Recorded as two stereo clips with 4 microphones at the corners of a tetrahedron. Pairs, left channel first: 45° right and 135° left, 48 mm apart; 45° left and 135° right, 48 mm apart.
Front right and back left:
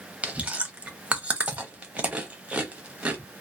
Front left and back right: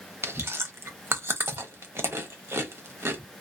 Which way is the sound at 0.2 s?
160° right.